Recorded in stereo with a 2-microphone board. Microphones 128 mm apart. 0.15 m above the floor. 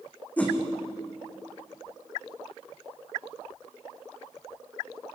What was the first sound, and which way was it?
A whoosh, 10° left (ahead or behind).